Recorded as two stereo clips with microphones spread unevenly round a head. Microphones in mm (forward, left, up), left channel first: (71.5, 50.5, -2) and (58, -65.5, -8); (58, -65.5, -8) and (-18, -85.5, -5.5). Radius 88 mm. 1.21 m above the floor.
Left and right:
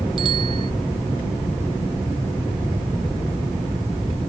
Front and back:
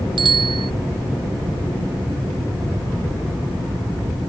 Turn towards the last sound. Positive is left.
turn(degrees=-160)